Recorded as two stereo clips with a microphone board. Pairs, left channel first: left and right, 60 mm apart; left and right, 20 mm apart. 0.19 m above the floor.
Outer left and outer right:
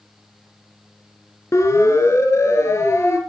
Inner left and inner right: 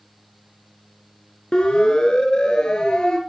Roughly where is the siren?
Left.